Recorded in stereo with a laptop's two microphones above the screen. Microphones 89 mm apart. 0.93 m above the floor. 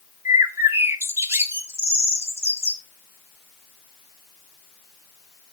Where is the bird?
30° right (ahead or behind), 0.7 m.